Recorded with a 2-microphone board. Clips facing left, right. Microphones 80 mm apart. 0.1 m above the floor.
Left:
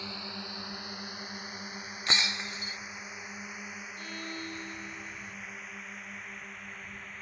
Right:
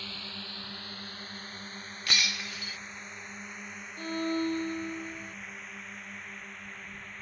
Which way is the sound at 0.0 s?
15° left (ahead or behind).